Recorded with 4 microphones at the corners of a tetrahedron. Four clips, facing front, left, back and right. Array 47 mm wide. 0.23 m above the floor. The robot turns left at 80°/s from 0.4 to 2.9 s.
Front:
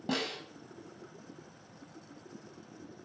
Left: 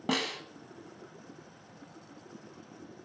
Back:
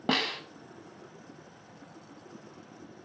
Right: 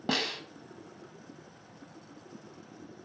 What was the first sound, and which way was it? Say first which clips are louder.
A snare drum: even, back 6 dB; 170° left.